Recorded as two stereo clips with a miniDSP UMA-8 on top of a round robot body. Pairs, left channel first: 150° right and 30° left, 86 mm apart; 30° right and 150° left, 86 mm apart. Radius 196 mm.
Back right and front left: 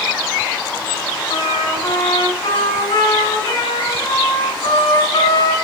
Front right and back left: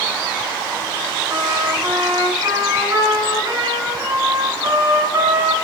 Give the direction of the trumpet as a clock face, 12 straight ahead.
6 o'clock.